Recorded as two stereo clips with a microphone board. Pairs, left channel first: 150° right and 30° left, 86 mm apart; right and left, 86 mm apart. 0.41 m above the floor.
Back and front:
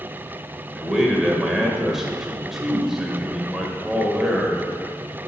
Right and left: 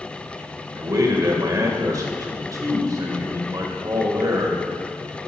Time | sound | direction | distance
0.8 | a man speaking | 115° left | 1.3 m